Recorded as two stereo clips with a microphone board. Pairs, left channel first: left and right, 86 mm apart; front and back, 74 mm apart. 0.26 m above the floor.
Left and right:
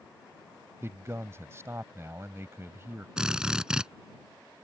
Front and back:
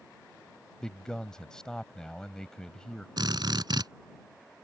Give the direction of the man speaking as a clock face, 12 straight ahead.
2 o'clock.